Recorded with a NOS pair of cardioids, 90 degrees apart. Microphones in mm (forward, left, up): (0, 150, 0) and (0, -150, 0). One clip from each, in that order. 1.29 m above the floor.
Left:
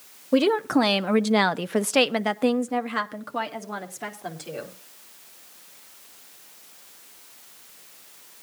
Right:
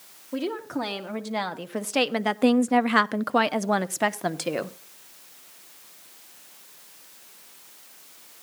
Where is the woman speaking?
60° left, 1.2 m; by 4.7 s 75° right, 1.4 m.